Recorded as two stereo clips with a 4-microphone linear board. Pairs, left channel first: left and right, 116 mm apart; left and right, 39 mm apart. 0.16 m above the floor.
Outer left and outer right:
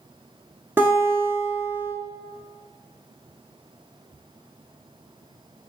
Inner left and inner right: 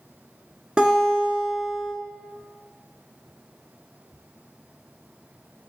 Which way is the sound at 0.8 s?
20° right (ahead or behind).